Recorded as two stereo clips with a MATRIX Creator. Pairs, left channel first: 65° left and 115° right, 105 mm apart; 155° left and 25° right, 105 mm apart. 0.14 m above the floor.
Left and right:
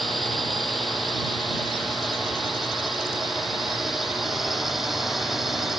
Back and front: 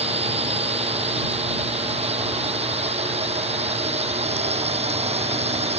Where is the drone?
20° right; by 5.8 s 25° right.